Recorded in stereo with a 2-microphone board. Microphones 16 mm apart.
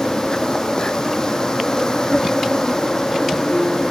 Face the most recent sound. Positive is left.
turn(degrees=35)  # may be behind; listen again after turning